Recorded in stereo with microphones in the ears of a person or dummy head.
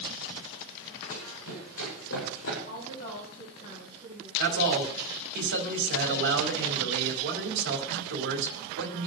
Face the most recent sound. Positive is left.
turn(degrees=-70)  # may be behind; listen again after turning